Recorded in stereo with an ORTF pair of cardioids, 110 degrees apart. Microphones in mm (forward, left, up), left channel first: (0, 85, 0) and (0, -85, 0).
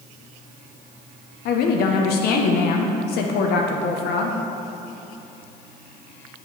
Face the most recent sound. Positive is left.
turn(degrees=70)